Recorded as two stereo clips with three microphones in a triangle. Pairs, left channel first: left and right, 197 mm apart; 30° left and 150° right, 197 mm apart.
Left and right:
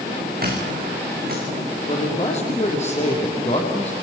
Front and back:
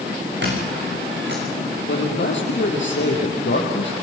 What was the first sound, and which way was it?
A squeak, 130° right.